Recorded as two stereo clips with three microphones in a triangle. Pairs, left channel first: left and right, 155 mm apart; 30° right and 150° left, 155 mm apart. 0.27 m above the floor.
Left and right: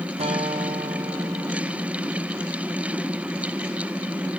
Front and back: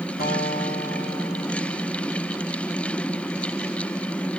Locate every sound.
0.2 s a guitar: 40° right, 5 m